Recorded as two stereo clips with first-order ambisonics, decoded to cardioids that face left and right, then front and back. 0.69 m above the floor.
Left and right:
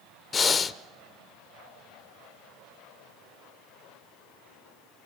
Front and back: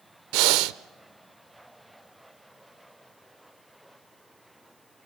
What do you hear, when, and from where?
0.3 s breathing: 160° left, 0.7 m